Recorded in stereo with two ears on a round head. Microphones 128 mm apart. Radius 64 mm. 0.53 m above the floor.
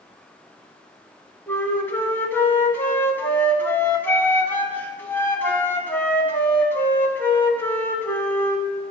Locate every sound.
1.5 s a flute: 15° left (ahead or behind), 1.1 m